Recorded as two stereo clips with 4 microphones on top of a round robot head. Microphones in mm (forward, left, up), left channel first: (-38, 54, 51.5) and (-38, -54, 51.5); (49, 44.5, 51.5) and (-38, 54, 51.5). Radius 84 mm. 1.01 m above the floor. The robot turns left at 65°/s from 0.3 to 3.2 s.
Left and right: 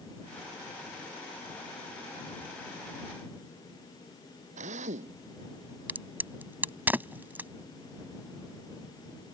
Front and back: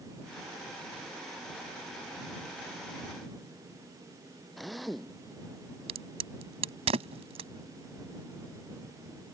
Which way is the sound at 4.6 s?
95° right.